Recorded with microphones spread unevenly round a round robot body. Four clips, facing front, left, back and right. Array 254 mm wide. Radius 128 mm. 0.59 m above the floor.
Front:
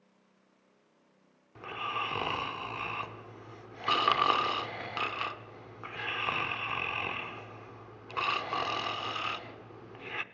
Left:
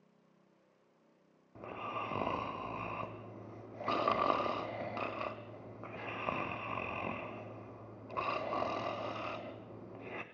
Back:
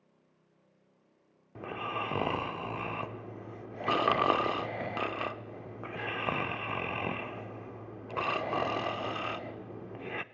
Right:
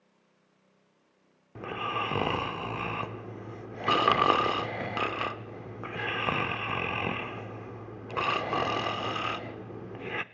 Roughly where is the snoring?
Right.